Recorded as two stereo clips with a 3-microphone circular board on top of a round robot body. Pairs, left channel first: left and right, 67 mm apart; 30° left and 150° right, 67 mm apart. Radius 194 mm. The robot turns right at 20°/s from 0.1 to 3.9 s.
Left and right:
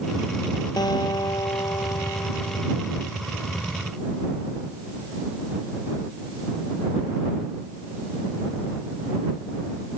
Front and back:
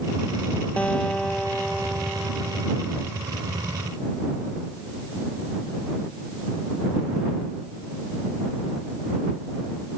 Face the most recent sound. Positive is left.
turn(degrees=160)